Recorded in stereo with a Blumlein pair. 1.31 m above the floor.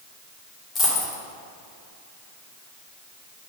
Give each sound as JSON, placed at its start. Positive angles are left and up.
{"t": 0.8, "sound": "a dropped coin", "azimuth_deg": 20, "distance_m": 1.8}